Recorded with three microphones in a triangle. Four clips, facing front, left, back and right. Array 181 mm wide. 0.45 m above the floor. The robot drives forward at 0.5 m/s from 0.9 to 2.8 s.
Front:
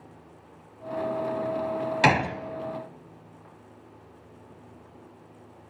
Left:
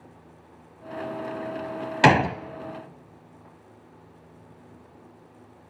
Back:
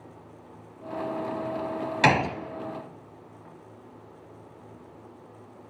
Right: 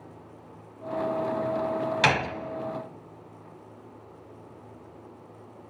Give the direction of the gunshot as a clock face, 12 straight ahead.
9 o'clock.